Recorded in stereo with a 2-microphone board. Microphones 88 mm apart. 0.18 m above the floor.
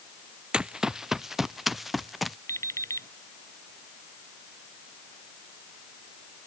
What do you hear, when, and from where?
0.5 s running footsteps: 10° right (ahead or behind); by 2.4 s centre (ahead or behind)
2.5 s an alarm clock: 35° left (ahead or behind)